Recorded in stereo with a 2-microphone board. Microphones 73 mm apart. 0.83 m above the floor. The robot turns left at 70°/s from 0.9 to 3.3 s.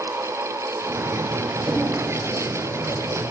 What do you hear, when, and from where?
1.7 s knocking: 60° right (ahead or behind), 2.5 m; by 1.9 s 75° right (ahead or behind), 2.5 m